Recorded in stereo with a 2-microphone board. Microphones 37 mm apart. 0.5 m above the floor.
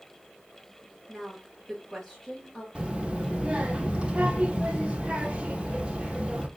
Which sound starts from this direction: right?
A child speaking, at 2.8 s.